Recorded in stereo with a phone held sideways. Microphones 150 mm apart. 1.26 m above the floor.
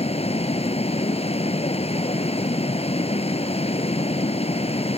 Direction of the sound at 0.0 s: 45° left (ahead or behind).